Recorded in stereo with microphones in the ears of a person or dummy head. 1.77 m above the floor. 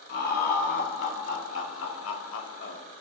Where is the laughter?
60° left (ahead or behind), 1.6 m; by 2.8 s 35° left (ahead or behind), 0.5 m.